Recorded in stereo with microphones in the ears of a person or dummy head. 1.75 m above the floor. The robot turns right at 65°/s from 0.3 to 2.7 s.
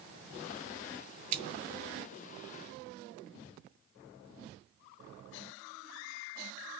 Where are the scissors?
45° right (ahead or behind), 2 m; by 1.4 s 40° right (ahead or behind), 2 m.